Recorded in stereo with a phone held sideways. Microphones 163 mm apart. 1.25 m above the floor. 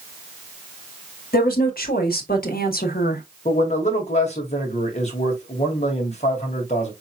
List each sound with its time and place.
1.3 s a woman speaking: 65° left (ahead or behind), 2 m
3.5 s a man speaking: 45° left (ahead or behind), 2 m